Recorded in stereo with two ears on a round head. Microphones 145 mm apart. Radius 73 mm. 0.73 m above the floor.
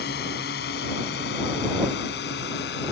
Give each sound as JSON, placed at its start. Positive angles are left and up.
{"t": 0.0, "sound": "a drone", "side_deg": 70}